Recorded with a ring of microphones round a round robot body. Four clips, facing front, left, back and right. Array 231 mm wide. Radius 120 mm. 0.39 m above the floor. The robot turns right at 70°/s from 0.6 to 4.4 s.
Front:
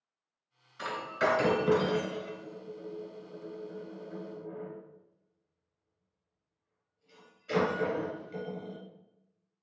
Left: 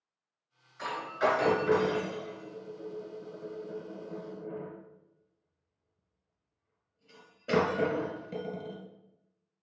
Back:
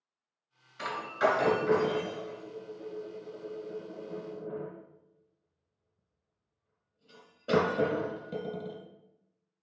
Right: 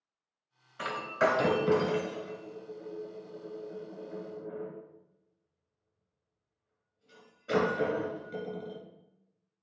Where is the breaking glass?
105° right, 1.8 m; by 8.8 s 150° left, 1.8 m.